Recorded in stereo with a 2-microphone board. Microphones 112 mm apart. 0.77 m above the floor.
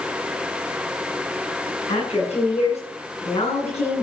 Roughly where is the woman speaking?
Left.